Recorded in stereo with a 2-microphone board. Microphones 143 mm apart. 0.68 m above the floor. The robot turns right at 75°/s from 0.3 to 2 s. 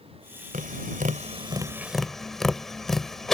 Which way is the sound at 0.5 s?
70° right (ahead or behind).